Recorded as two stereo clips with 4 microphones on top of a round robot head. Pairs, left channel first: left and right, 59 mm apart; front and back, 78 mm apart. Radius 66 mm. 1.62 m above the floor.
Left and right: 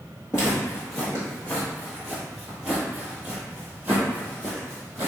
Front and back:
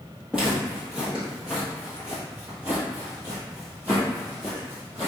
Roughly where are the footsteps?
Left.